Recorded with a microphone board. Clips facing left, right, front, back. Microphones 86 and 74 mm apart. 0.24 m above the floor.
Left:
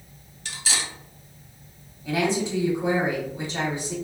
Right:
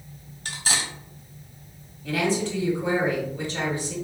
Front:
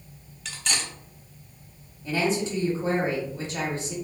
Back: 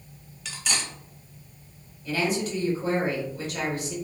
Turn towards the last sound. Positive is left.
turn(degrees=35)